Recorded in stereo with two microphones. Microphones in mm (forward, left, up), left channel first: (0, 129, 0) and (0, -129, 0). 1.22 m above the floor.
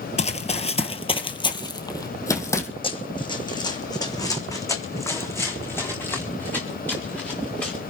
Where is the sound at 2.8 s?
20° left (ahead or behind), 3 m; by 7.8 s 5° left (ahead or behind), 5 m.